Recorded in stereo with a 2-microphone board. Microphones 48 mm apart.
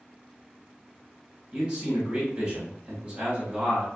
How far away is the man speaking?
About 1.2 m.